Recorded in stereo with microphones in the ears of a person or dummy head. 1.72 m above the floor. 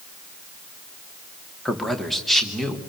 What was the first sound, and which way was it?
A man speaking, centre (ahead or behind).